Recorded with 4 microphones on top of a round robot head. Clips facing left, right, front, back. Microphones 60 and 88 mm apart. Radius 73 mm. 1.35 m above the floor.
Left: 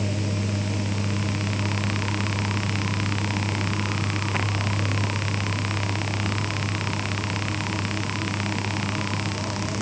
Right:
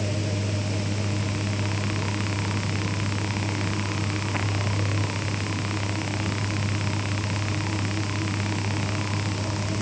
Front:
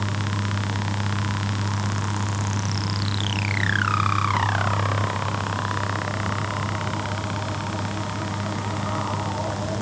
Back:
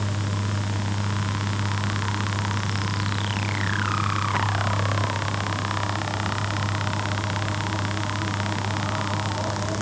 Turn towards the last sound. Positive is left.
No sound to turn to.